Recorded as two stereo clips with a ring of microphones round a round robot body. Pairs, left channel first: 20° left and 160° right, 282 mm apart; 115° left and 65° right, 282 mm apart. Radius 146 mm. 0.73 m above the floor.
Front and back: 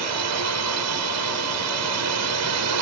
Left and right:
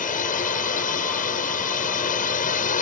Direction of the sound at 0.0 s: 175° left.